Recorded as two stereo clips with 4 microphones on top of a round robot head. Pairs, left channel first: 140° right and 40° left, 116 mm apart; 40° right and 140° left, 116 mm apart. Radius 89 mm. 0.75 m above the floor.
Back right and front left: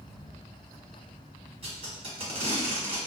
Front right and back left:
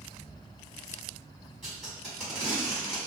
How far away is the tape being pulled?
About 1.7 m.